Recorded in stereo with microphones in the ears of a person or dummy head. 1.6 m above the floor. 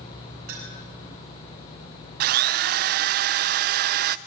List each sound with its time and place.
0.5 s a clink: 55° right (ahead or behind), 6.5 m
2.2 s a drill: 55° right (ahead or behind), 0.8 m